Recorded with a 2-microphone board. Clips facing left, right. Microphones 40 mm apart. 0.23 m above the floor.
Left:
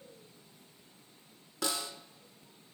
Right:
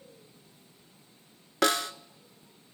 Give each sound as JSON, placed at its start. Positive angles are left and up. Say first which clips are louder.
{"t": 1.6, "sound": "a snare drum", "louder": "right 10 dB", "side_deg": -80, "distance_m": 0.6}